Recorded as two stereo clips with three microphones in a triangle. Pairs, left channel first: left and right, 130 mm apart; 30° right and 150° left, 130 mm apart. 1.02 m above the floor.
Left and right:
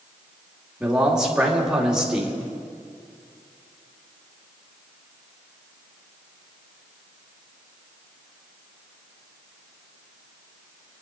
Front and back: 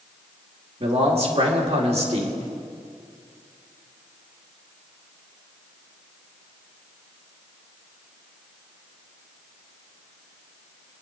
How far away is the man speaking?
About 2.5 m.